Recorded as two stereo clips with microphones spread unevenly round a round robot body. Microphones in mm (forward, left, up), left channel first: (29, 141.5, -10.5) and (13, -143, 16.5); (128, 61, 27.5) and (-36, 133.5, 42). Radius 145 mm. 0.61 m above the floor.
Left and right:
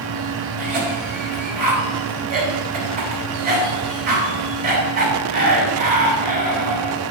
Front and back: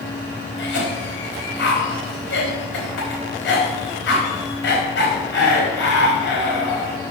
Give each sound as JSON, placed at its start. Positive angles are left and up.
{"t": 0.6, "sound": "a cough", "azimuth_deg": -35, "distance_m": 4.0}